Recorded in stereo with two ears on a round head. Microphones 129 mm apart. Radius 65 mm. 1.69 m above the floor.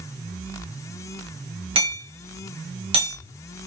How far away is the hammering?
About 1.5 m.